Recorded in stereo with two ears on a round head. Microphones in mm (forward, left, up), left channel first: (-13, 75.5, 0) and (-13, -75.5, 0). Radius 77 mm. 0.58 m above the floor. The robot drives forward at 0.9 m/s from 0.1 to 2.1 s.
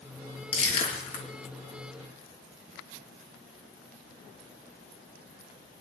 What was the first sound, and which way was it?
Crushing, 35° left (ahead or behind).